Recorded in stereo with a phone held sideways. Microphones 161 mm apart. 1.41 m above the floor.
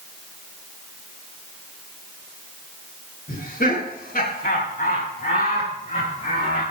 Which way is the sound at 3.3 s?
55° left (ahead or behind).